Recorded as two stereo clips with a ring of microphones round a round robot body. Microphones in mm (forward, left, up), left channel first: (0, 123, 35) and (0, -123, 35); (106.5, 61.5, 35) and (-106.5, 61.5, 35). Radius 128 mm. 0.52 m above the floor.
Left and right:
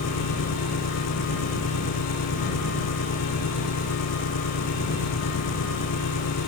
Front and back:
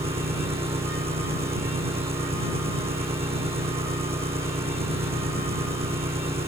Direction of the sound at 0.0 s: 115° left.